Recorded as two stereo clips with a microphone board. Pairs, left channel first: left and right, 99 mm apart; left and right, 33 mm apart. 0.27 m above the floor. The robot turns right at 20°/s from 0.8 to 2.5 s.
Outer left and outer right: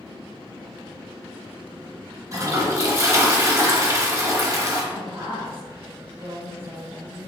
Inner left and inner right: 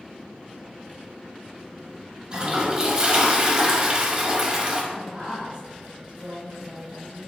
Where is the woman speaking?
25° right (ahead or behind), 1.4 m.